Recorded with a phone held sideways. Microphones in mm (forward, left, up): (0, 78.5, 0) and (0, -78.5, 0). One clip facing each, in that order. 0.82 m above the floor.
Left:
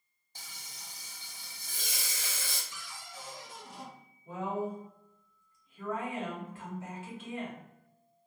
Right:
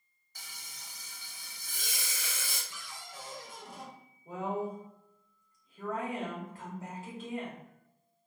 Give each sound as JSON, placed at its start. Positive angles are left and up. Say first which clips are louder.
{"t": 0.3, "sound": "frying", "louder": "left 1 dB", "side_deg": 30, "distance_m": 0.8}
{"t": 2.7, "sound": "a cupboard door", "louder": "even", "side_deg": -55, "distance_m": 0.9}
{"t": 4.2, "sound": "a woman speaking", "louder": "even", "side_deg": -40, "distance_m": 1.6}